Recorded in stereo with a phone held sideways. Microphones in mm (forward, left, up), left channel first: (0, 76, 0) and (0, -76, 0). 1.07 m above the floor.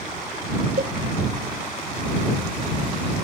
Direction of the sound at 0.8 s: 70° right (ahead or behind).